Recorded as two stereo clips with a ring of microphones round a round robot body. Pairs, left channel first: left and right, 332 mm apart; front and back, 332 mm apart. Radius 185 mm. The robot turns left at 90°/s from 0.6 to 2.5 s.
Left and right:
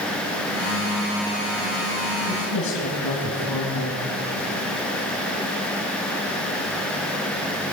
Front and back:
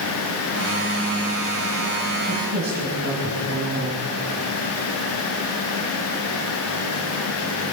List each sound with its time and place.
2.3 s a woman speaking: 140° left, 2.5 m; by 4.1 s 120° left, 2.5 m